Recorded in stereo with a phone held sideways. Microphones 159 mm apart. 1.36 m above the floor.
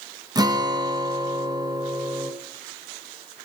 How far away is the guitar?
About 0.7 m.